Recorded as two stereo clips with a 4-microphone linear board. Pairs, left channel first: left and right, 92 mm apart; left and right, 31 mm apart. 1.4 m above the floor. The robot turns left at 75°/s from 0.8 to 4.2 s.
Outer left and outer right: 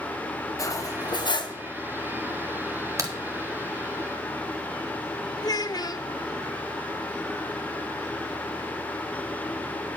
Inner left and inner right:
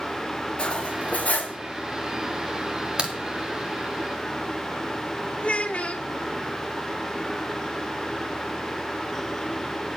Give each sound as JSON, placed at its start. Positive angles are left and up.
{"t": 0.6, "sound": "cutlery clinking", "azimuth_deg": 135, "distance_m": 0.9}
{"t": 3.0, "sound": "a crack", "side_deg": -35, "distance_m": 1.2}
{"t": 5.4, "sound": "a child speaking", "side_deg": 50, "distance_m": 0.7}